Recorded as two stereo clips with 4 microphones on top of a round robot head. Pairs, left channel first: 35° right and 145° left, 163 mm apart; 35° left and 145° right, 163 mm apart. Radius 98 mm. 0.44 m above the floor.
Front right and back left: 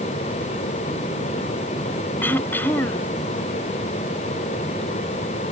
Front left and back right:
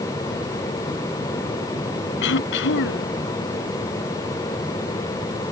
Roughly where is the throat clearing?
Ahead left.